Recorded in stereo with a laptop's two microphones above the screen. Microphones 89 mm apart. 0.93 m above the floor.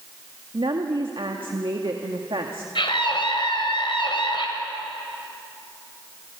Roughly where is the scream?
Left.